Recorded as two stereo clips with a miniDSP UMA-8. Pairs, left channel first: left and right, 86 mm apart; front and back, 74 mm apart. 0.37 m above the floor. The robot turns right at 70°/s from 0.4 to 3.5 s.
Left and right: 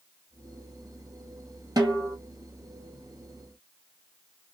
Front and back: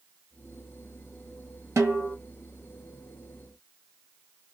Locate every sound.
1.8 s a snare drum: 135° right, 1.8 m; by 2.1 s 105° right, 1.8 m